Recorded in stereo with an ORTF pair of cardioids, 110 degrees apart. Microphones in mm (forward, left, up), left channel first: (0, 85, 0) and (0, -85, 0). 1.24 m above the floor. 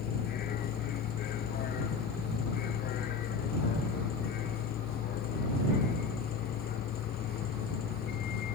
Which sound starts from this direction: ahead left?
A vehicle, at 0.0 s.